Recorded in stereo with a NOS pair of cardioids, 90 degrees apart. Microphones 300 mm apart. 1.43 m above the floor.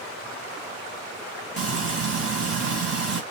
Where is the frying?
50° right, 2 m.